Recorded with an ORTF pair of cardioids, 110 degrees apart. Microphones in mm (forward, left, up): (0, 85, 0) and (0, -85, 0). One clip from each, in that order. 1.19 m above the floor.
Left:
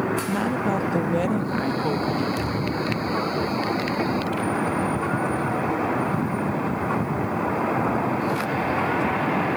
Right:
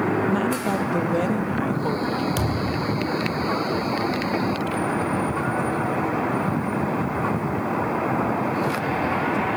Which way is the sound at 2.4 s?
60° right.